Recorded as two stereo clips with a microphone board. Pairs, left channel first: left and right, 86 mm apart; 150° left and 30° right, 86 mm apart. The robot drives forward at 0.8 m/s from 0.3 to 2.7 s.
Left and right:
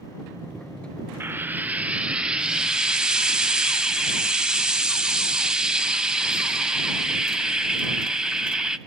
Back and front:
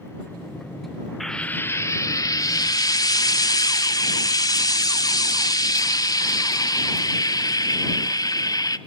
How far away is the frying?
About 0.5 m.